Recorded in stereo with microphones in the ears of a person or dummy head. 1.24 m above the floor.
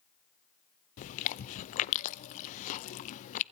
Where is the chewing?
50° left (ahead or behind), 0.7 m.